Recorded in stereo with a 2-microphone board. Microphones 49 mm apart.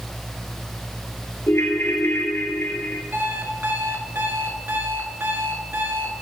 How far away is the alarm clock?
About 1.2 m.